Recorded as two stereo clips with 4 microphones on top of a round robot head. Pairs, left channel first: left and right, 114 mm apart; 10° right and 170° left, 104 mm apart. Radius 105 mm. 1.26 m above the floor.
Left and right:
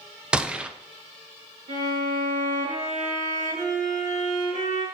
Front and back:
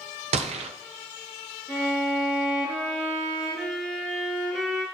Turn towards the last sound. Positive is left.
turn(degrees=-105)